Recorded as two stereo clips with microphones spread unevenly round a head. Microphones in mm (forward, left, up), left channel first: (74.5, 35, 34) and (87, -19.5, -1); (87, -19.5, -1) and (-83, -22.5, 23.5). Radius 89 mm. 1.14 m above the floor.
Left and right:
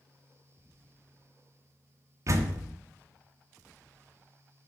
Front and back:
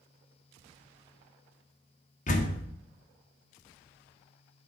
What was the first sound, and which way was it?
A door slam, 45° right.